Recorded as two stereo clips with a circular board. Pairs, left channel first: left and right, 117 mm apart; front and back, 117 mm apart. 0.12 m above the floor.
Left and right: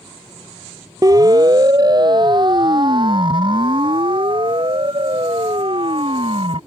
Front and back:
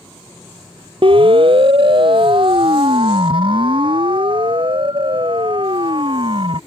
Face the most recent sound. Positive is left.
turn(degrees=-135)